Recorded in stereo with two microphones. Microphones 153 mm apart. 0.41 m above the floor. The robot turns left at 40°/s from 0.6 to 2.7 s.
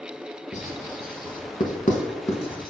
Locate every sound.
0.5 s writing: 55° left (ahead or behind), 0.5 m; by 2.7 s 30° left (ahead or behind), 0.5 m